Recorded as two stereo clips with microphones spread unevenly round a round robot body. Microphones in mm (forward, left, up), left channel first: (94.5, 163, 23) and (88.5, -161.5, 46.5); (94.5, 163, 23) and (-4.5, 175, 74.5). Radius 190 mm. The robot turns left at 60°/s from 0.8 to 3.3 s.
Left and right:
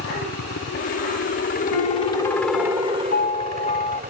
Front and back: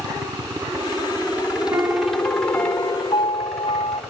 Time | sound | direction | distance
0.0 | a helicopter | 105° left | ?
1.7 | a piano | 115° left | ?